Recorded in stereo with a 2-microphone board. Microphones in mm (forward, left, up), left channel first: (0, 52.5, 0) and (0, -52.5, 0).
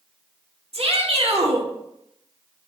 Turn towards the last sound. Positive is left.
turn(degrees=-70)  # may be behind; listen again after turning